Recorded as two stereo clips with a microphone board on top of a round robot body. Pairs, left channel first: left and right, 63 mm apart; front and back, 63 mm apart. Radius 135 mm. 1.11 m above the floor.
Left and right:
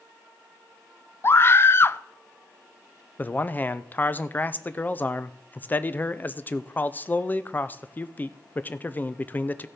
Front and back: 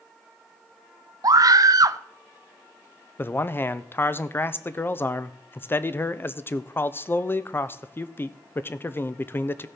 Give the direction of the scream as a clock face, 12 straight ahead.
7 o'clock.